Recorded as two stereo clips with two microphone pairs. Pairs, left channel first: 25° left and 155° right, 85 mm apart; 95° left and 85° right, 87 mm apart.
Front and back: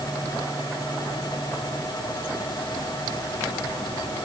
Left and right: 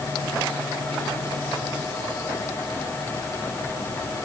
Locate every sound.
Only background noise.